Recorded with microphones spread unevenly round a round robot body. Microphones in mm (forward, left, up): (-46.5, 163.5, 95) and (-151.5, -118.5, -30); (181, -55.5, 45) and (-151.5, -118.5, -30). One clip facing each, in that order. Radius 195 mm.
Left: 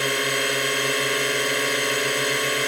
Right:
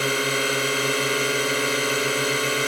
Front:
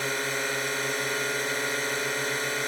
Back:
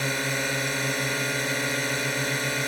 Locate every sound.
0.0 s a drone: 175° left